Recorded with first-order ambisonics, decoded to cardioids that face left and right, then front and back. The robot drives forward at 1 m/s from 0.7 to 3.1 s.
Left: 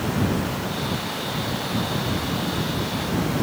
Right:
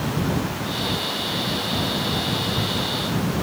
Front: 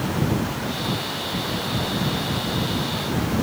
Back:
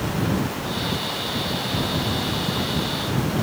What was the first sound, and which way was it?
Only background noise.